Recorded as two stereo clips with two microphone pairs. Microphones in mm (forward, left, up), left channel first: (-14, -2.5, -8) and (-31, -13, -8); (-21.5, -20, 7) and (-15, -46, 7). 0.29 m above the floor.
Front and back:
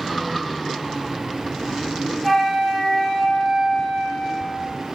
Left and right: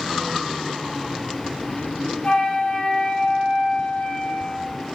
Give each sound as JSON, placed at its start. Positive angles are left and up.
{"t": 2.2, "sound": "a flute", "azimuth_deg": 105, "distance_m": 2.0}